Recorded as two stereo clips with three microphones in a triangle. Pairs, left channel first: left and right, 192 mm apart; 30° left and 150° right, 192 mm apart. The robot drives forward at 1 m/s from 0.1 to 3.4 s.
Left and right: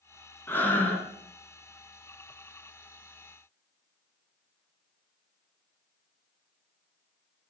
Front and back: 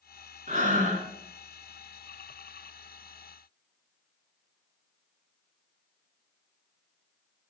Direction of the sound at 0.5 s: 170° left.